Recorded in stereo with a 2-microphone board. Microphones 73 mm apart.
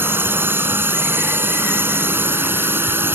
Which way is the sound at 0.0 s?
30° right (ahead or behind).